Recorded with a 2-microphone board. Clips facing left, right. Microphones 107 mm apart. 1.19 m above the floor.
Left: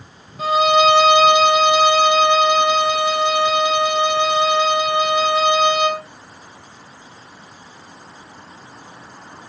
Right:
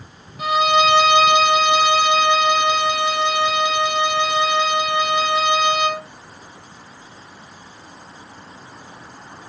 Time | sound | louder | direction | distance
0.4 | a violin | left 2 dB | 35° left (ahead or behind) | 2 m